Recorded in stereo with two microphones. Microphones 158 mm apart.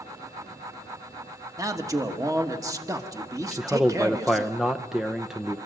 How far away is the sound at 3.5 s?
About 0.5 m.